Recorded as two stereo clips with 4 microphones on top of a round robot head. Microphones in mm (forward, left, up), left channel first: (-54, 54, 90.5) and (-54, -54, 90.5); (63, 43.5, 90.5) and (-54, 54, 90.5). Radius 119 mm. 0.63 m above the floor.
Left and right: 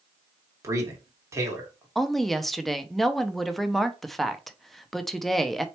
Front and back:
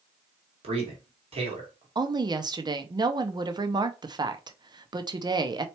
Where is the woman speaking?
Straight behind, 0.8 m.